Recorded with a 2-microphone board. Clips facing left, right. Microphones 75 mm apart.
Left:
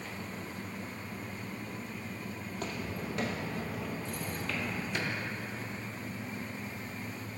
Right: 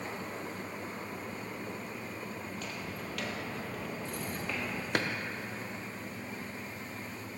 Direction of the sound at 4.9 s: 65° right (ahead or behind).